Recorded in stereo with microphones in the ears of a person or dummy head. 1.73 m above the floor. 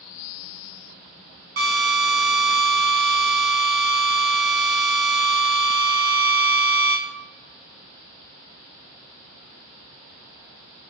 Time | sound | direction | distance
1.6 | a drill | 45° right (ahead or behind) | 0.7 m